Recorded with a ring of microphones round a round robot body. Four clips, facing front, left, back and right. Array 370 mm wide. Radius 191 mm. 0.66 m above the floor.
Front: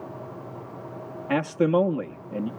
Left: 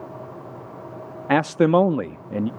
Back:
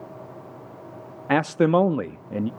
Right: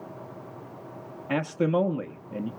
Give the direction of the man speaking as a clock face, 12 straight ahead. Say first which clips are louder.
Left 8 dB, back 3 dB; 8 o'clock.